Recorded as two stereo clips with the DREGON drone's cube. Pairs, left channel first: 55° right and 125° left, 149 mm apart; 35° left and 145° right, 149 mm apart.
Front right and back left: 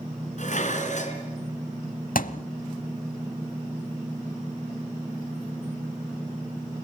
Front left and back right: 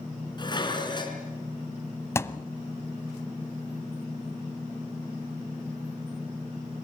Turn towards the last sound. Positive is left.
turn(degrees=-35)